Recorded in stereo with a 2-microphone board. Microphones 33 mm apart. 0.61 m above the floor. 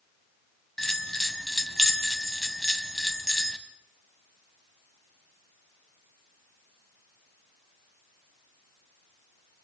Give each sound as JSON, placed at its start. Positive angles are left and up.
{"t": 0.8, "sound": "a bell", "side_deg": 5, "distance_m": 1.9}